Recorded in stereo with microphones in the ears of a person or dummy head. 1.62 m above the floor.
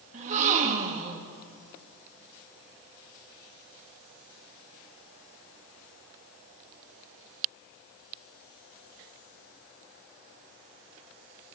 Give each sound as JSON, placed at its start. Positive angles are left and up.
{"t": 0.1, "sound": "a gasp", "side_deg": -45, "distance_m": 2.5}